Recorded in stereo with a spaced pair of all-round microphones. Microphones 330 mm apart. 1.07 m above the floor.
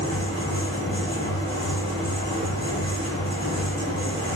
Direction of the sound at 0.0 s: 15° left (ahead or behind).